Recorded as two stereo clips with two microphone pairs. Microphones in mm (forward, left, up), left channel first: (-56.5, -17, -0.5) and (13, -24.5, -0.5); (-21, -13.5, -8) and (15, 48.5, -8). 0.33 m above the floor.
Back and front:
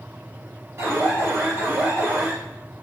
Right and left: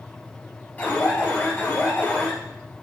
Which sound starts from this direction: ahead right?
An alarm, at 0.8 s.